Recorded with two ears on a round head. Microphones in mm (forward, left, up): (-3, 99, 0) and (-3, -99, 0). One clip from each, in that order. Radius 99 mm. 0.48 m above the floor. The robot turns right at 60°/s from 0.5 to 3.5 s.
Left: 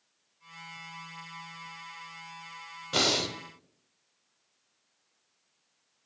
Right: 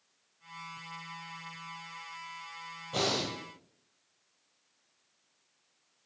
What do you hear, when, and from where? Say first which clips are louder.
2.9 s breathing: left 5 dB; 60° left (ahead or behind), 0.5 m; by 3.4 s 75° left (ahead or behind), 0.5 m